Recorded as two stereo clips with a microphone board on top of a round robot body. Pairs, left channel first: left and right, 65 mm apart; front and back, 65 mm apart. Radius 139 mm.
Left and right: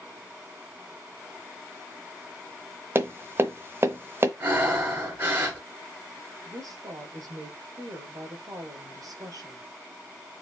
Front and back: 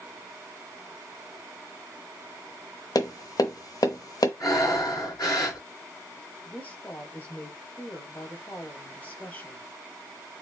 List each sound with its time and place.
3.0 s tapping: 35° right, 0.8 m
4.4 s breathing: 30° right, 4 m
6.5 s a woman speaking: 65° right, 4 m